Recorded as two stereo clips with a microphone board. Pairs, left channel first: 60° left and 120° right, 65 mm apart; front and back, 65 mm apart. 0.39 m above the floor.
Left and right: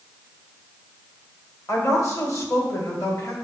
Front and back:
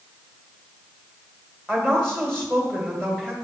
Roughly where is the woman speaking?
Left.